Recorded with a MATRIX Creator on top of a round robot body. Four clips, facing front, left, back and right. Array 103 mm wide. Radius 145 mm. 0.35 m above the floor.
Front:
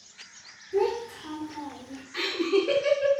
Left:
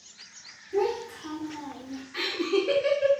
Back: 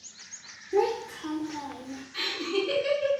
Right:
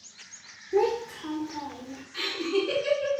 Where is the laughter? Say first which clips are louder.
Left 1 dB, front 6 dB; 40° left, 1.2 m.